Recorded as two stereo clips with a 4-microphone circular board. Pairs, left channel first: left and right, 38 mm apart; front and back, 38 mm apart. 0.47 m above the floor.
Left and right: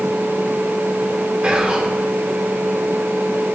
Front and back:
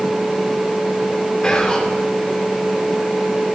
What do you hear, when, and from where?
1.4 s whispering: 50° right, 1.6 m